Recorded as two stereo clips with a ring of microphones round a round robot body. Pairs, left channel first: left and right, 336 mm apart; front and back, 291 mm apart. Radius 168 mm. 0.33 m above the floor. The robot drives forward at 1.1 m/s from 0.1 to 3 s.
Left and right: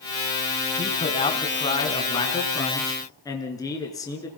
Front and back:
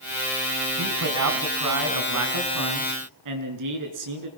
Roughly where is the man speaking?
Behind.